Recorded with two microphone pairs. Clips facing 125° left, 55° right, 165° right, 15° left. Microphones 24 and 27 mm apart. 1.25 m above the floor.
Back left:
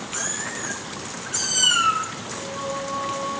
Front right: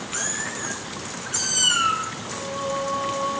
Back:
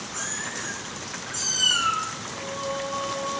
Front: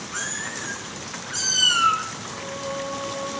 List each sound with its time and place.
0.1 s a cat meowing: 20° left, 3 m; by 2.1 s 55° left, 1.2 m
2.3 s singing: 90° right, 1.2 m